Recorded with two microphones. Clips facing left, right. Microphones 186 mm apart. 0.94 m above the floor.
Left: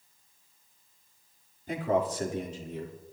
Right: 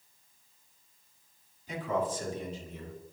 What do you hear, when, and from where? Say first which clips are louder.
1.7 s a man speaking: left 4 dB; 55° left (ahead or behind), 2.5 m; by 3.0 s 75° left (ahead or behind), 3 m